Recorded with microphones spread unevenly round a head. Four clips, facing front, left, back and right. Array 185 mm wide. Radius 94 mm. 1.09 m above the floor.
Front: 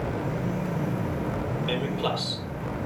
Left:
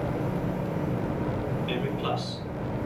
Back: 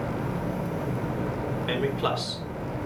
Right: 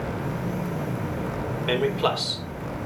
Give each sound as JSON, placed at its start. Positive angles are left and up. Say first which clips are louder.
{"t": 1.7, "sound": "a man speaking", "louder": "right 10 dB, back 2 dB", "azimuth_deg": -100, "distance_m": 3.5}